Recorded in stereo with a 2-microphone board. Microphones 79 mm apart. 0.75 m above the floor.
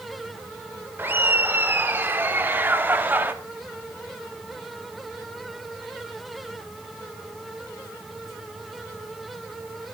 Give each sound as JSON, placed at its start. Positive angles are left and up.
{"t": 1.0, "sound": "laughter", "side_deg": -25, "distance_m": 3.0}